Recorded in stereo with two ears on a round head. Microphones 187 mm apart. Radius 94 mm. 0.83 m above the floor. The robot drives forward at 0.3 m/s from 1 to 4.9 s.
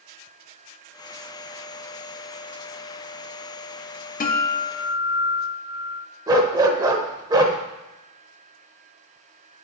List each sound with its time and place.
4.2 s a guitar: 40° left (ahead or behind), 0.9 m; by 6.1 s 50° left (ahead or behind), 0.7 m
6.3 s a dog barking: 20° right (ahead or behind), 0.7 m